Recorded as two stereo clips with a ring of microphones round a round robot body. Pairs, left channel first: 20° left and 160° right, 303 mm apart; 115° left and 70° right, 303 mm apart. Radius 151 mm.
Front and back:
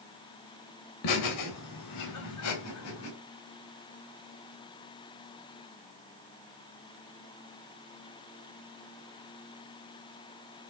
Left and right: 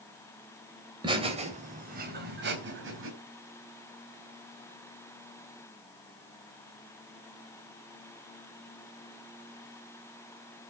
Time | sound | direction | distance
1.0 | laughter | 5° left | 3.5 m